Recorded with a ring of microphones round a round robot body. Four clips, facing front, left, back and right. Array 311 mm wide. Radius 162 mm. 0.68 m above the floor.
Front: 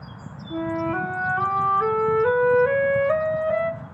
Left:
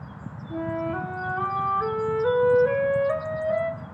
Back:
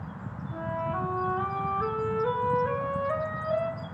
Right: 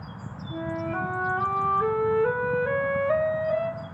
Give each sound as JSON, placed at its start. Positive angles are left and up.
{"t": 0.5, "sound": "a flute", "azimuth_deg": 5, "distance_m": 0.8}